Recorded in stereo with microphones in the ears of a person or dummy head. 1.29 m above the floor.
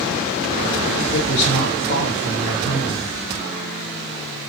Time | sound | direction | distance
1.1 | a woman speaking | 35° left (ahead or behind) | 1.2 m